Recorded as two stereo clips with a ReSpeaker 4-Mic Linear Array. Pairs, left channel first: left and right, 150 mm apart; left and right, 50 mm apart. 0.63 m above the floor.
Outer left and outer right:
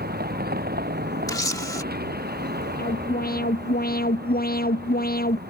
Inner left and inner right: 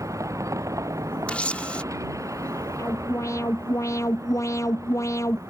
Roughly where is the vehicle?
Right.